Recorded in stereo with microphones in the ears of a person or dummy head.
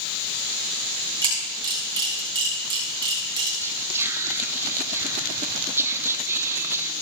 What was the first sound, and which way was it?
A camera shutter, 20° right (ahead or behind).